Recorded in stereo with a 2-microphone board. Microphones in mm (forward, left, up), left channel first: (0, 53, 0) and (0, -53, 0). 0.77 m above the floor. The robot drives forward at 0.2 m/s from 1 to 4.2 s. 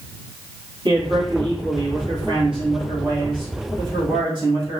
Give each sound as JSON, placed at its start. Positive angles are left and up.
{"t": 0.8, "sound": "a man speaking", "side_deg": -55, "distance_m": 1.5}